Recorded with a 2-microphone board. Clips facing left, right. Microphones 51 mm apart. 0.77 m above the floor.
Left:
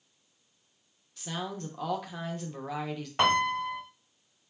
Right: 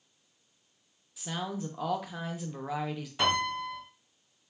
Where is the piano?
60° left (ahead or behind), 0.8 m.